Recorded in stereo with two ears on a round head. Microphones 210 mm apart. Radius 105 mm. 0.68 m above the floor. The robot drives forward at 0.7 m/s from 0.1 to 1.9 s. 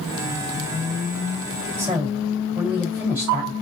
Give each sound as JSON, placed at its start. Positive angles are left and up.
{"t": 1.8, "sound": "a woman speaking", "side_deg": -10, "distance_m": 2.5}